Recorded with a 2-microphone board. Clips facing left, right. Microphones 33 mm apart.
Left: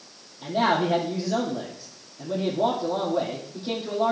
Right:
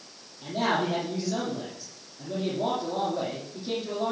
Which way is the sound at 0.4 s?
30° left (ahead or behind).